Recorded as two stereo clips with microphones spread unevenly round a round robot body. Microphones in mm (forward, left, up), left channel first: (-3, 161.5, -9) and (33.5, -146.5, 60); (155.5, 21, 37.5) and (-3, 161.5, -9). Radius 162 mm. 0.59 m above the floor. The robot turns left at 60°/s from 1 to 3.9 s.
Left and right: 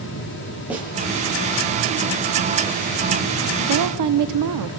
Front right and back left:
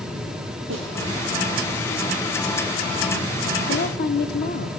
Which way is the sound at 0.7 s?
170° right.